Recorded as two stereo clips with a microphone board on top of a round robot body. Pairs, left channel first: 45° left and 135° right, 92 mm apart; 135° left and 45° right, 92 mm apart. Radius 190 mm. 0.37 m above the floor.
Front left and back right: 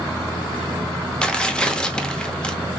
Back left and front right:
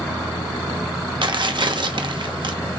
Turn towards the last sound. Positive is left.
turn(degrees=-35)